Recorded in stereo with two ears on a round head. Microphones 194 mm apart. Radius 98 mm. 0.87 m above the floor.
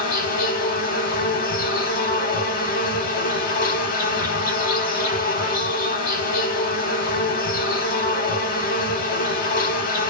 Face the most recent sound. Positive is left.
turn(degrees=45)  # may be behind; listen again after turning